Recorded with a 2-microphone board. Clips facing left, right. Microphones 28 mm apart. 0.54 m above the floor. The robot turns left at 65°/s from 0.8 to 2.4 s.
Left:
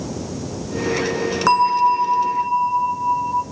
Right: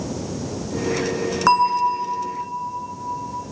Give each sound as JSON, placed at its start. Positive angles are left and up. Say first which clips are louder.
{"t": 1.5, "sound": "a bell", "louder": "left 2 dB", "azimuth_deg": 180, "distance_m": 1.2}